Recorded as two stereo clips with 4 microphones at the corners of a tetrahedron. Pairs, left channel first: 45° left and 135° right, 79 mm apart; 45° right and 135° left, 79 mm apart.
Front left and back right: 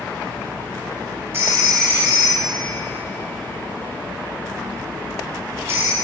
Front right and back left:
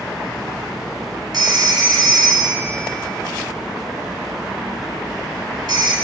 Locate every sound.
1.3 s a phone ringing: 165° left, 3.5 m